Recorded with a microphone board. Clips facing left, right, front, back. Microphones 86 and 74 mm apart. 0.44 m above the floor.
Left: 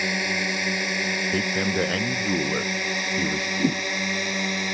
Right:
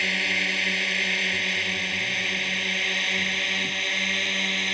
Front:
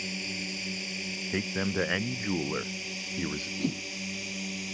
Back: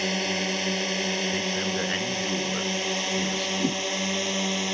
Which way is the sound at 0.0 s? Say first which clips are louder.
Left 2 dB, back 10 dB; 160° left.